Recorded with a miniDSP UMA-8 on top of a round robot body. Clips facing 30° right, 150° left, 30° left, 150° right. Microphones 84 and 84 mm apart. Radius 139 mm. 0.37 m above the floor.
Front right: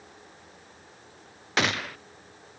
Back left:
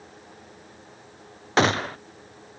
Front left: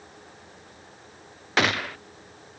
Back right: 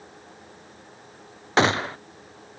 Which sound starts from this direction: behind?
A gunshot, at 1.6 s.